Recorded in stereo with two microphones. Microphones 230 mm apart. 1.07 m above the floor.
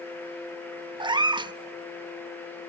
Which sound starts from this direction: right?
A cat meowing, at 1.0 s.